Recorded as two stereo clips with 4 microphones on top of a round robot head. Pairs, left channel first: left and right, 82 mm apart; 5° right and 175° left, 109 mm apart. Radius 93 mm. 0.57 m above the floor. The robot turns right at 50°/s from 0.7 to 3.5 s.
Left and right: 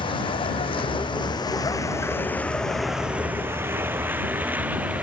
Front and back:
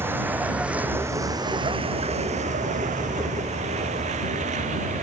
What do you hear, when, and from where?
0.0 s a vehicle: 105° left; by 5.0 s 165° right